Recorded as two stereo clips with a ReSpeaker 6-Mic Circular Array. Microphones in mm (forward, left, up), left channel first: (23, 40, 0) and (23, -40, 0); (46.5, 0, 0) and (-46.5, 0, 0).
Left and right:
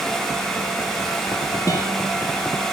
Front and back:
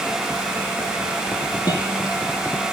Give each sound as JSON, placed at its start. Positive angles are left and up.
{"t": 1.7, "sound": "a guitar", "azimuth_deg": 45, "distance_m": 4.0}